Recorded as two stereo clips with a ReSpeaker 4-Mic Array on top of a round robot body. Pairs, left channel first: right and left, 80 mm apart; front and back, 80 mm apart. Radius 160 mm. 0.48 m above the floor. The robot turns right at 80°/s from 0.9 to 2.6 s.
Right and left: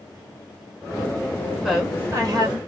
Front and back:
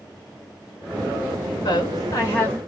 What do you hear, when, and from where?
1.6 s a woman speaking: straight ahead, 1.7 m; by 2.6 s 75° left, 1.7 m